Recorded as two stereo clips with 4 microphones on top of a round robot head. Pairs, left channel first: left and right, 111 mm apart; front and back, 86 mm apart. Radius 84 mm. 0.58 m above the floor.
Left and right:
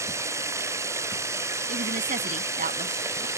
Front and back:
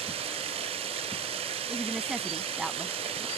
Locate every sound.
0.0 s running water: 155° right
1.7 s a woman speaking: 95° right